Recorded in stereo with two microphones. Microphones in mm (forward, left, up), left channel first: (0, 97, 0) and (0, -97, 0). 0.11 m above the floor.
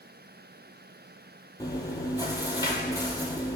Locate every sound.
1.6 s chewing: 20° left (ahead or behind), 0.5 m